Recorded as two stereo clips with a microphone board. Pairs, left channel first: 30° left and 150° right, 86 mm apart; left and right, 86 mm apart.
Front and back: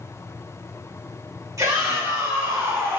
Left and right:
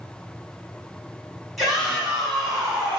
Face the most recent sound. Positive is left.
turn(degrees=-160)